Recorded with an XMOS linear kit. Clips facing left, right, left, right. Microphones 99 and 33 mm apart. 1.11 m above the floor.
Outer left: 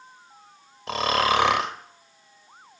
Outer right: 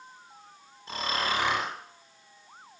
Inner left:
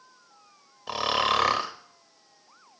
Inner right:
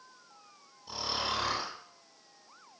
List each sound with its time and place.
0.9 s snoring: 85° left, 1.1 m